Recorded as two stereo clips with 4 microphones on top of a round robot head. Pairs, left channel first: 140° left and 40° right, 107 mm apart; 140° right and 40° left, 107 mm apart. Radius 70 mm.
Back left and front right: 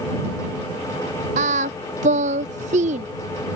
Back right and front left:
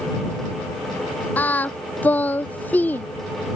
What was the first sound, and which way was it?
Singing, 65° right.